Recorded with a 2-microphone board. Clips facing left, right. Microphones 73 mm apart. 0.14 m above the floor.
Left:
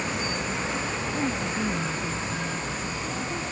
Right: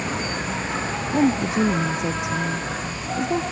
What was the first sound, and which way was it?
An insect, 45° right (ahead or behind).